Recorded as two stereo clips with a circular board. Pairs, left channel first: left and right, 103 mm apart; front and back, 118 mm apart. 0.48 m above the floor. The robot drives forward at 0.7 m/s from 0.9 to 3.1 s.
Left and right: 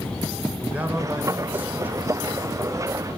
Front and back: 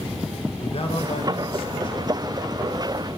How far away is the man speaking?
About 2 m.